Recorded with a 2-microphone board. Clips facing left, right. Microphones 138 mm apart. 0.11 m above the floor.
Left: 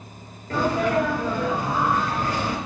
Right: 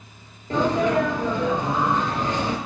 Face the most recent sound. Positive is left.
turn(degrees=-20)  # may be behind; listen again after turning